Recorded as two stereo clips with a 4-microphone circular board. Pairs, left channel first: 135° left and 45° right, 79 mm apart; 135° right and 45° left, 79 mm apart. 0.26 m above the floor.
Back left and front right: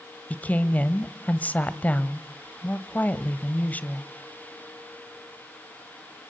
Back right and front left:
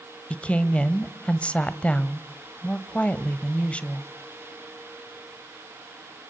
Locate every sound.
0.3 s a woman speaking: 170° left, 1.0 m